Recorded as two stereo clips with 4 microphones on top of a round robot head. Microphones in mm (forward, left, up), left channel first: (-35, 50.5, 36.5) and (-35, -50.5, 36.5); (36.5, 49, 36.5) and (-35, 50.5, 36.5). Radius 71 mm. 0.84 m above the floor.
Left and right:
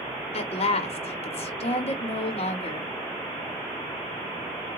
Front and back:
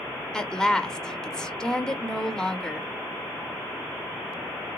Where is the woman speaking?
80° left, 1.1 m.